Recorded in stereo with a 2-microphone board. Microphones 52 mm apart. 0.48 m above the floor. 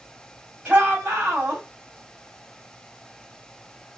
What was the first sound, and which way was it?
A shout, 30° right (ahead or behind).